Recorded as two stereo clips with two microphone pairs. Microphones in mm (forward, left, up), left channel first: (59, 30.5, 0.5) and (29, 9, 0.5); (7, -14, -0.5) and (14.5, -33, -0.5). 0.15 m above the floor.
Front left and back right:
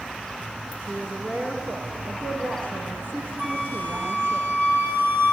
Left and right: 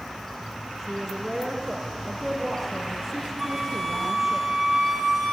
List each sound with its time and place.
0.8 s a woman speaking: 165° right, 9 m
3.4 s a flute: 155° right, 5 m